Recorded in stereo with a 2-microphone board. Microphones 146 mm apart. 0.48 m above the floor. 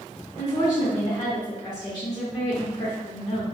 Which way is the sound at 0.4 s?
30° left (ahead or behind).